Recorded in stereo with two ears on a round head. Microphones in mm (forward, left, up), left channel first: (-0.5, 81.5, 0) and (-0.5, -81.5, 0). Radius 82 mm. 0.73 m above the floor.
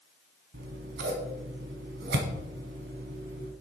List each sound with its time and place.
0.5 s scissors: 65° right (ahead or behind), 1.3 m